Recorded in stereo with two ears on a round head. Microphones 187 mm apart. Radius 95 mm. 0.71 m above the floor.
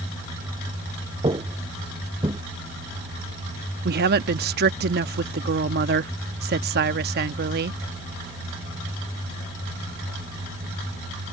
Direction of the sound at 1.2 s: 20° right (ahead or behind).